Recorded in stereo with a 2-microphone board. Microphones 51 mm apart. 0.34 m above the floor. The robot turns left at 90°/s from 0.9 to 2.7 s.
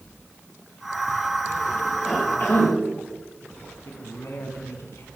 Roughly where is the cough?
Behind.